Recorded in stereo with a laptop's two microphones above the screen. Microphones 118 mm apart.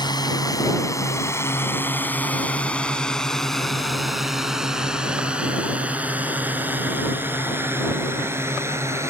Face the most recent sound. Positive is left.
turn(degrees=-25)  # may be behind; listen again after turning